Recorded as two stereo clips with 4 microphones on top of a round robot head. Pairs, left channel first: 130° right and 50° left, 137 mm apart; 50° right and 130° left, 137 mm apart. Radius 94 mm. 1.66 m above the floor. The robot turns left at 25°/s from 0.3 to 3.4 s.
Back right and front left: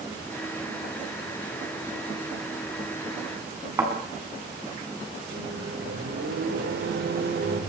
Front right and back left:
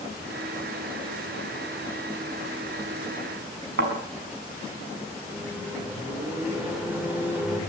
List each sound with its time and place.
3.8 s a thud: 120° left, 5.5 m
5.3 s a microwave: 55° left, 6 m